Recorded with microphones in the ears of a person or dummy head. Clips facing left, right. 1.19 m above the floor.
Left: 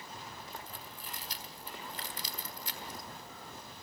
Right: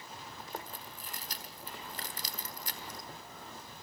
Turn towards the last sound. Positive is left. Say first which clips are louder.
# right 3 dB
turn(degrees=-35)  # may be behind; listen again after turning